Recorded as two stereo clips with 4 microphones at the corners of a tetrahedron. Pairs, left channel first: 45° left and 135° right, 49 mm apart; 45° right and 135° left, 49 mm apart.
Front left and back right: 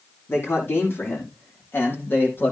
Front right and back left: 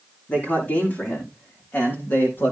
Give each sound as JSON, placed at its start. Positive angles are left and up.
{"t": 0.3, "sound": "a man speaking", "azimuth_deg": 5, "distance_m": 6.0}